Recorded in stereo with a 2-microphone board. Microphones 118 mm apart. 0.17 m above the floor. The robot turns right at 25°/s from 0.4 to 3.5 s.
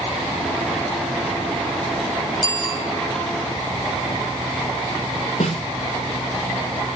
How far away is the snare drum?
About 7 m.